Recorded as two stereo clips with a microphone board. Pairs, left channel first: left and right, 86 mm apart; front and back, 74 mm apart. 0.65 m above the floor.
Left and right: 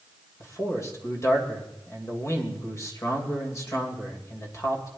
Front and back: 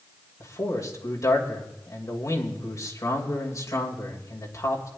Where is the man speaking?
40° left, 2.5 m.